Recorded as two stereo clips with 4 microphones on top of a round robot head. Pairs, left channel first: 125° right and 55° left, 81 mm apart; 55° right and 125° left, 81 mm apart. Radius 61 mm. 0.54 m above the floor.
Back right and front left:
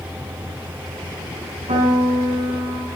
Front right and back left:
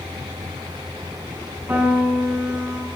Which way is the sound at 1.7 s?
55° left.